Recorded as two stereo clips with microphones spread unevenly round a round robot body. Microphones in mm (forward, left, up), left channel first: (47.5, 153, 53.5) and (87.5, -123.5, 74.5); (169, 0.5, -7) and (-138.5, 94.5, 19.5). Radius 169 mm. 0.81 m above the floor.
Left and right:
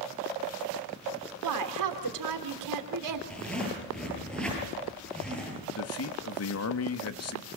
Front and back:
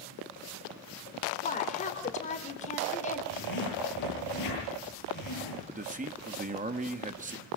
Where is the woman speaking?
85° right, 3 m.